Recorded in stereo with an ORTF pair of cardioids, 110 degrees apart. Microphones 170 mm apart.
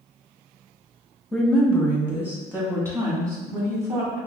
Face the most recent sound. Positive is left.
turn(degrees=-20)